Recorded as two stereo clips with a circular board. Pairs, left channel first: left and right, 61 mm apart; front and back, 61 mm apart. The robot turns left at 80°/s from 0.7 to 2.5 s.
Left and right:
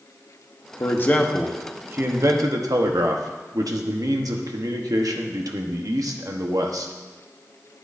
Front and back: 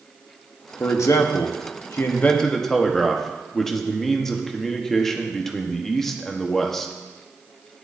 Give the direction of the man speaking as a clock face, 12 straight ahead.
10 o'clock.